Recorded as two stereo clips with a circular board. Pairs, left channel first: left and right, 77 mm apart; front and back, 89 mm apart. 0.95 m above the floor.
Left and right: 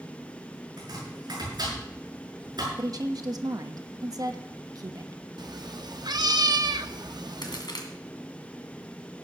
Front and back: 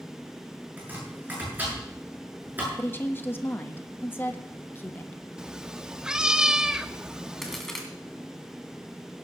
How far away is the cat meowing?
About 0.6 m.